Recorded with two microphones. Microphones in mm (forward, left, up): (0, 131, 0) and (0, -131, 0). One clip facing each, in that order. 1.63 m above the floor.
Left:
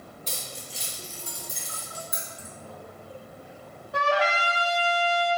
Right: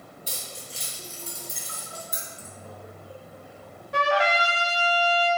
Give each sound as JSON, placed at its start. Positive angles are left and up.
{"t": 0.3, "sound": "keys jangling", "side_deg": -10, "distance_m": 2.5}
{"t": 2.1, "sound": "keys jangling", "side_deg": -30, "distance_m": 1.3}
{"t": 3.9, "sound": "a trumpet", "side_deg": -75, "distance_m": 1.5}